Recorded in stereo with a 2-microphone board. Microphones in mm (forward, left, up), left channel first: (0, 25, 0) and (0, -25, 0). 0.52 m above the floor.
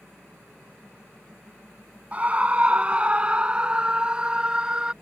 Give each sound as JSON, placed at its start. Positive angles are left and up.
{"t": 2.1, "sound": "a scream", "side_deg": -25}